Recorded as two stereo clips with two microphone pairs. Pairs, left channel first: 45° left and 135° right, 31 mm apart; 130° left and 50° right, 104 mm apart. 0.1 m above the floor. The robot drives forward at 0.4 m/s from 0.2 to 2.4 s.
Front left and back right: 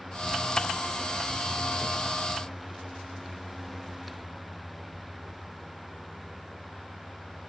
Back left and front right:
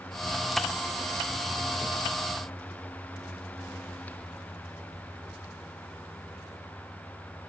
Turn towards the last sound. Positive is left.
No sound to turn to.